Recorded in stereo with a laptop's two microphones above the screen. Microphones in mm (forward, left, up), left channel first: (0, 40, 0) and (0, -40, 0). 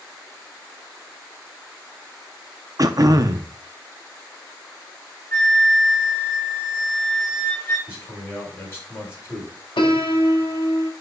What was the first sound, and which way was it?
Throat clearing, 50° right (ahead or behind).